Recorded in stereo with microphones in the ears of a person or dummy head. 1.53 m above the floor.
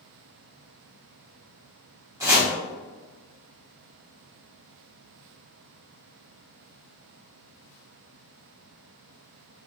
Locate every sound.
2.2 s chopping: 15° right (ahead or behind), 1.4 m